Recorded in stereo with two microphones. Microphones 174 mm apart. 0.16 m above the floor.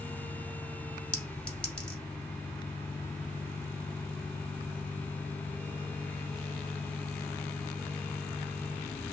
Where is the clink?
5° left (ahead or behind), 1.0 m.